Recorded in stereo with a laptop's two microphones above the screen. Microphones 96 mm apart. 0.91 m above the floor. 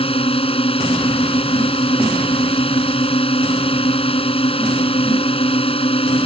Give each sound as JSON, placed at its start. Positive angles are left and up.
{"t": 0.0, "sound": "a drone", "side_deg": 85}